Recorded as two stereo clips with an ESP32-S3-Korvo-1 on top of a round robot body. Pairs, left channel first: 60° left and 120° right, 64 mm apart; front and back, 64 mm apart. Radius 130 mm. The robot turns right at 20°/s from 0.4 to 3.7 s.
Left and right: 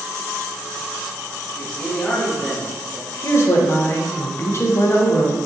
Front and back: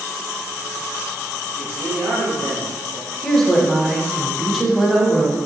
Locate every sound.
1.5 s a man speaking: 125° left, 1.8 m; by 3.1 s 155° left, 1.8 m
3.2 s a woman speaking: 80° left, 0.8 m; by 5.4 s 90° left, 0.8 m